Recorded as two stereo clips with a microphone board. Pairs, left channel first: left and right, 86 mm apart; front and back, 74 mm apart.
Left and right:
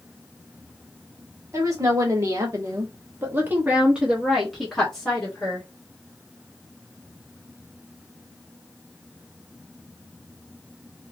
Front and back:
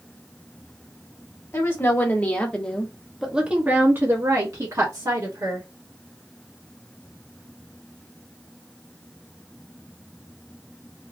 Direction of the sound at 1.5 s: 50° right.